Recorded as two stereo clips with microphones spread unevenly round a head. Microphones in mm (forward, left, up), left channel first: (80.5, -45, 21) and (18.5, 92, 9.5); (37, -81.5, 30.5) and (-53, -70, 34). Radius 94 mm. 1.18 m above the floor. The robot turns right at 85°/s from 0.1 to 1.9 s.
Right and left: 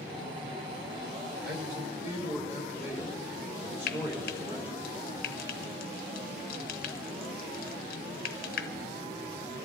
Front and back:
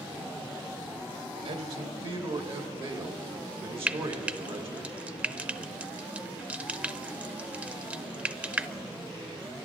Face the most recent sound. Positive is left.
turn(degrees=-110)